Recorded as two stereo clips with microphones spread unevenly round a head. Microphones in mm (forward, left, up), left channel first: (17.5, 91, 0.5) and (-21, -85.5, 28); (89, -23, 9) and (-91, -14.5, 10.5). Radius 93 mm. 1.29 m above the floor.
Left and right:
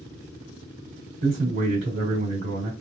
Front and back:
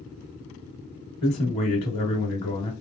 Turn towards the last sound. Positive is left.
turn(degrees=-70)